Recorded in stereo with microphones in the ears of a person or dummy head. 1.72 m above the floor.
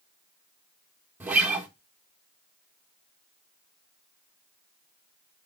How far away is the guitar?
About 1.5 m.